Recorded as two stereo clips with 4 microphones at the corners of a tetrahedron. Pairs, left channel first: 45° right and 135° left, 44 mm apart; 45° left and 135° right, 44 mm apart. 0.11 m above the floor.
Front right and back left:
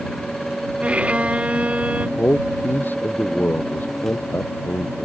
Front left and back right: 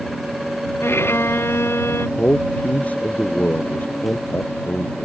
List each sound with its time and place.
0.8 s a violin: 75° left
2.2 s a man speaking: 5° right